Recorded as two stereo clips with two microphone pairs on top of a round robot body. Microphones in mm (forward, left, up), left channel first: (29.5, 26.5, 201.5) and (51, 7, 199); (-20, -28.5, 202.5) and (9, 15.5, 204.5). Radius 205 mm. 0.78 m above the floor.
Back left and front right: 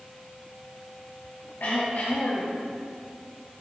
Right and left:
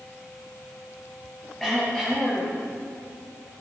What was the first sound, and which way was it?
Throat clearing, 155° left.